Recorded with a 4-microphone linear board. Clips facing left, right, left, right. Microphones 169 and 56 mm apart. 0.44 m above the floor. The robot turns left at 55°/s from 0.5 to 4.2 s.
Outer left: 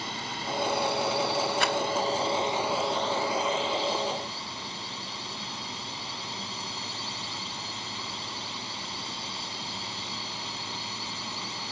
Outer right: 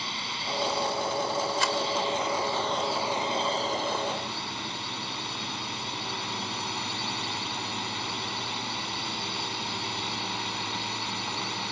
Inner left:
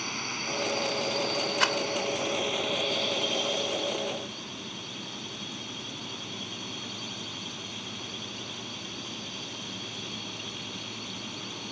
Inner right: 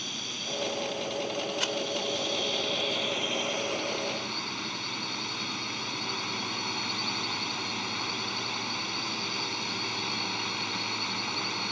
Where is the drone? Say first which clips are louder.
Outer left 2 dB, inner left 4 dB; 130° left; by 11.7 s 75° right.